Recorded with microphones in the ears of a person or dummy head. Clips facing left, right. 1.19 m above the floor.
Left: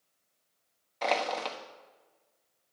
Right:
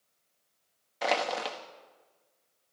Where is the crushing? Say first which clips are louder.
Even; 10° right (ahead or behind), 1.1 m.